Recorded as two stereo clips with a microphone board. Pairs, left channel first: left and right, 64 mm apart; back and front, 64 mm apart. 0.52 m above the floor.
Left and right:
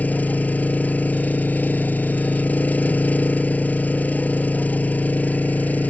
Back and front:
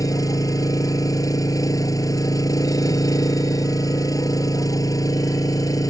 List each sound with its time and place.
0.0 s an engine running: 155° left